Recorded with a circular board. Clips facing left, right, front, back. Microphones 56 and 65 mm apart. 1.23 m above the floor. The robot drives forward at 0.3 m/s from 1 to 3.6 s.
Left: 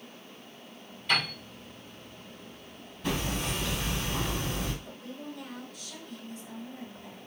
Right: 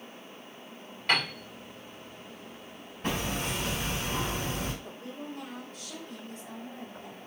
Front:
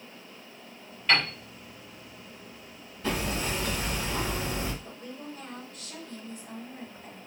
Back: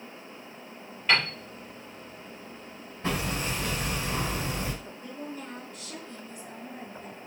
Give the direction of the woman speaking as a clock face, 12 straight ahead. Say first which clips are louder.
Right 1 dB, back 2 dB; 4 o'clock.